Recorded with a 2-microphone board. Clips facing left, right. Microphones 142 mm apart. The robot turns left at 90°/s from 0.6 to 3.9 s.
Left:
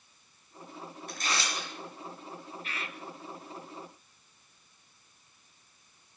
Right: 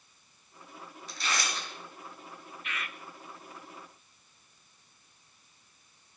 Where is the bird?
70° left, 0.6 m; by 3.0 s 35° left, 0.6 m.